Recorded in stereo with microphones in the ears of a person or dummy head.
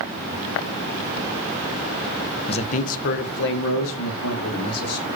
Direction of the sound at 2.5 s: 30° left (ahead or behind).